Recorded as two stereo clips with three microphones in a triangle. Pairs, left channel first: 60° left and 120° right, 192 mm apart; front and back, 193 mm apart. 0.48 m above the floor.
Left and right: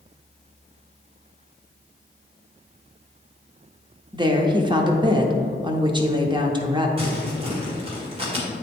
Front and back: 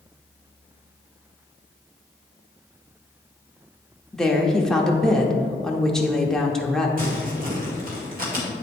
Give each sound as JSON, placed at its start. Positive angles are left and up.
{"t": 4.1, "sound": "a woman speaking", "azimuth_deg": -85, "distance_m": 0.7}
{"t": 7.0, "sound": "crumpling", "azimuth_deg": -170, "distance_m": 1.8}